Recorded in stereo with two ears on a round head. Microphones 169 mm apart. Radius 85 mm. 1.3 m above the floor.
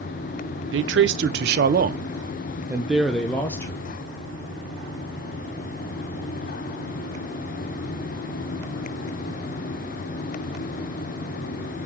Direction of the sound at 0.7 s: 75° right (ahead or behind).